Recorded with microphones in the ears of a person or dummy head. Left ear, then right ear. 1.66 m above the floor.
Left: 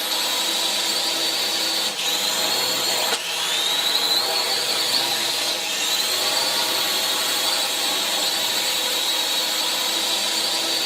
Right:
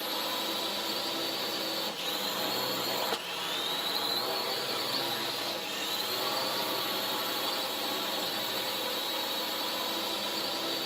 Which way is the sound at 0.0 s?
60° left (ahead or behind).